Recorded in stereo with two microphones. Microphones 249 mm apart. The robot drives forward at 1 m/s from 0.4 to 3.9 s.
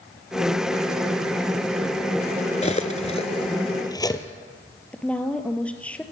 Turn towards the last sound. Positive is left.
turn(degrees=5)  # may be behind; listen again after turning